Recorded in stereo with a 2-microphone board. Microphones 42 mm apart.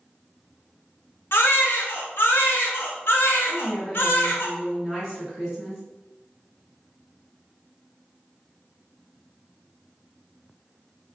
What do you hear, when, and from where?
1.3 s a baby crying: 65° left (ahead or behind), 0.7 m
3.5 s a woman speaking: 5° right (ahead or behind), 1.4 m